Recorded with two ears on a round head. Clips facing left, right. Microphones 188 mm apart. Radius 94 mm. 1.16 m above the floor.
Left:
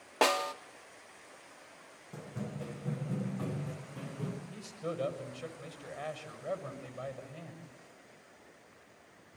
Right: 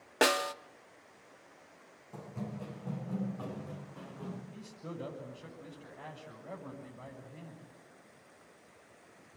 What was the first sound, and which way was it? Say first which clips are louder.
A snare drum: right 1 dB; 15° right (ahead or behind).